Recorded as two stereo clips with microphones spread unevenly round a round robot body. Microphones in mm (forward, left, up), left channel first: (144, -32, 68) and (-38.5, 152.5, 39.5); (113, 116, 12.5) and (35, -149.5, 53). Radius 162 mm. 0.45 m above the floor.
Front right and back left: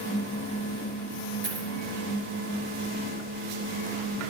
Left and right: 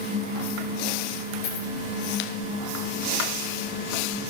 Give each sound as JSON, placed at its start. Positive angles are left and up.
{"t": 1.4, "sound": "a dropped coin", "azimuth_deg": 85, "distance_m": 3.0}